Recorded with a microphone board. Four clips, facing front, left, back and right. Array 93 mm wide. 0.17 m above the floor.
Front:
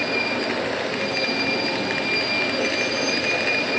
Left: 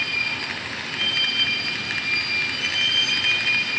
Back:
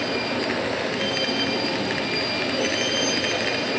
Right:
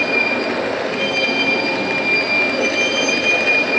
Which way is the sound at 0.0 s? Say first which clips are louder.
Right 10 dB, front 1 dB; 95° right.